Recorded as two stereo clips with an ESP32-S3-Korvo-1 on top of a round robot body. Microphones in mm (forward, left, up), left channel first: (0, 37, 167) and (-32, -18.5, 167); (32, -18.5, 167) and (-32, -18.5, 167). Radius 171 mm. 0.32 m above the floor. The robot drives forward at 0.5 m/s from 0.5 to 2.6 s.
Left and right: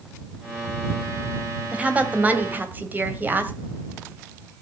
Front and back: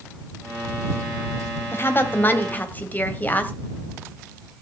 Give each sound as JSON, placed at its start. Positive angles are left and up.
{"t": 1.7, "sound": "a woman speaking", "azimuth_deg": -50, "distance_m": 2.5}